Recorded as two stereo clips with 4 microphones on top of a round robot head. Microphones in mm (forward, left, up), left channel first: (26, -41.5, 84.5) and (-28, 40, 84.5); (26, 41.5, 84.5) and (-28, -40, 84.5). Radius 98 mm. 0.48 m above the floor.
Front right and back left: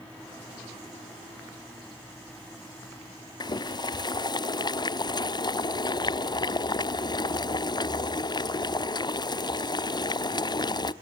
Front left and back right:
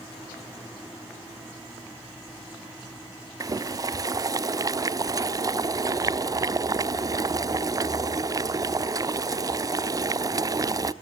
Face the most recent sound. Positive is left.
turn(degrees=-85)